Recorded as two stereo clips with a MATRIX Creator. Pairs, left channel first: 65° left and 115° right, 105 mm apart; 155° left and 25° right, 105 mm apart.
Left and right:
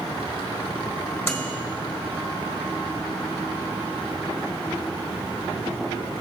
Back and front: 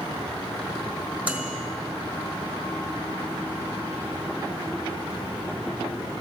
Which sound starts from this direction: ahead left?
A microwave, at 1.2 s.